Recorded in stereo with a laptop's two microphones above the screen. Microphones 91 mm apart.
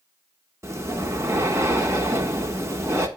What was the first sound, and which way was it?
Breathing, 30° right (ahead or behind).